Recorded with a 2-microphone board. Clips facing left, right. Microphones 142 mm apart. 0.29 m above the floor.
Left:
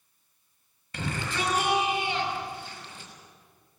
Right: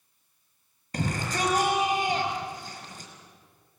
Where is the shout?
40° right (ahead or behind), 5.5 m.